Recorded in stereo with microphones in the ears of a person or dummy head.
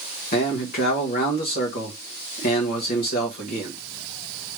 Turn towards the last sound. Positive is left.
turn(degrees=40)  # may be behind; listen again after turning